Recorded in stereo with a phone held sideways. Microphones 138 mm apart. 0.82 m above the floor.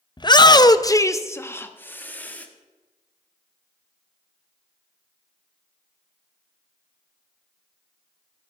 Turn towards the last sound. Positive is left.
turn(degrees=10)  # may be behind; listen again after turning